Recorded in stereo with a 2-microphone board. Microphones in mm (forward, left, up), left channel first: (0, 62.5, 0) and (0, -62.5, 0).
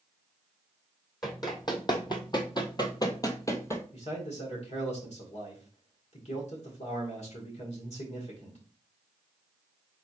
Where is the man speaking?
60° left (ahead or behind), 1.9 m.